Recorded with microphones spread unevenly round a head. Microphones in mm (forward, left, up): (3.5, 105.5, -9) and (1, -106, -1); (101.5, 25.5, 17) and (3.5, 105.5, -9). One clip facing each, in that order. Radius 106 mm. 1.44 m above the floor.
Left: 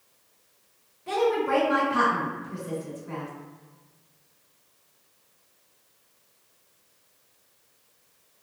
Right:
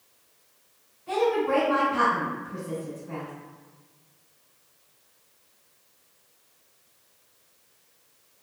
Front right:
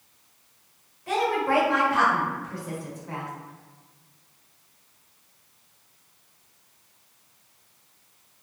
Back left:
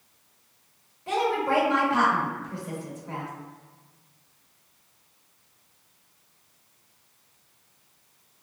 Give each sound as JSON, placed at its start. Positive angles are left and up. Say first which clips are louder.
{"t": 1.1, "sound": "a woman speaking", "louder": "even, front right 1 dB", "azimuth_deg": 75, "distance_m": 1.6}